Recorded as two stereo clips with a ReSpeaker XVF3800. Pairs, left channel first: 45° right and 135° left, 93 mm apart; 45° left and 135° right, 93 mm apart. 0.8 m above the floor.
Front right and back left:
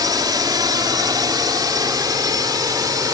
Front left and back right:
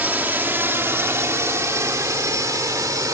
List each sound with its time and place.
0.0 s a drone: 160° left; by 3.1 s 175° left